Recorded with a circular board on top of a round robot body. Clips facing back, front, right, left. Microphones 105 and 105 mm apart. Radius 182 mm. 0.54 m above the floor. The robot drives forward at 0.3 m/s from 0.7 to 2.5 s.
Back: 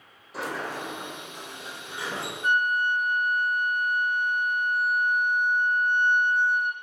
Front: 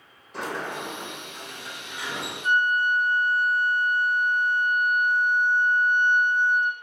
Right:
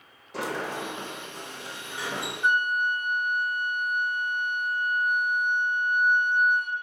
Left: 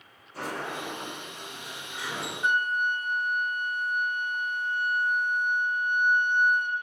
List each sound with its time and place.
0.3 s a sliding door: 95° right, 0.8 m; by 2.3 s 125° right, 1.0 m
2.4 s a flute: 170° right, 1.3 m